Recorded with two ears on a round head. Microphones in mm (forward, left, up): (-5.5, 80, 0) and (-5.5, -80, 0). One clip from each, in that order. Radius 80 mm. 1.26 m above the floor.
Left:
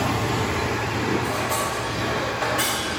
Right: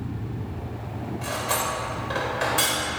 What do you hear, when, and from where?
1.2 s cutlery clinking: 85° right, 3.5 m